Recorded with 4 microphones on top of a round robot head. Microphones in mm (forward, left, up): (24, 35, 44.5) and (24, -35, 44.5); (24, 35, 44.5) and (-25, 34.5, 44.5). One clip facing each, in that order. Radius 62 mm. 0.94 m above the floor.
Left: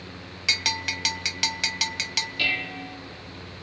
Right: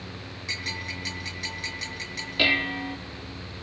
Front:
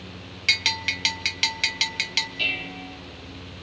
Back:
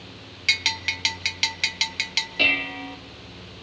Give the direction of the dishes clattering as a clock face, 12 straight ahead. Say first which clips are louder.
Right 6 dB, back 10 dB; 5 o'clock.